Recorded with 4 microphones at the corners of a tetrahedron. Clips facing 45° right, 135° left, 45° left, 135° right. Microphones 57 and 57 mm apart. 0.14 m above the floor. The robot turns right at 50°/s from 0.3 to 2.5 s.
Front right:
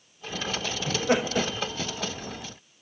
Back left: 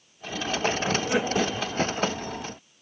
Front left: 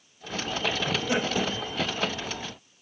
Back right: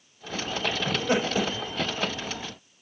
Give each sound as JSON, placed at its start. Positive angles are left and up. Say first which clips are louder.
{"t": 0.9, "sound": "laughter", "louder": "even, back right 2 dB", "azimuth_deg": -100, "distance_m": 6.5}